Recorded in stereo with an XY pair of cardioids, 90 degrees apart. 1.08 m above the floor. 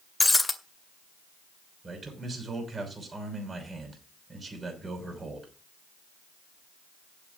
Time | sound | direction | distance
0.2 | breaking glass | 20° left | 2 m
1.8 | a man speaking | 35° right | 6 m